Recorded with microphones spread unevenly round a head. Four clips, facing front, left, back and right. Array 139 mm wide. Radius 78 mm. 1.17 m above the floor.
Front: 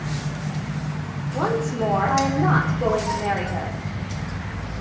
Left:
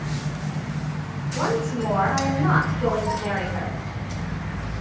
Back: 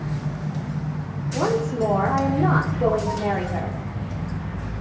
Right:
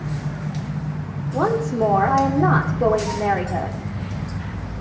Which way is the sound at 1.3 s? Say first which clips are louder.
Right 4 dB, back 1 dB; 100° right.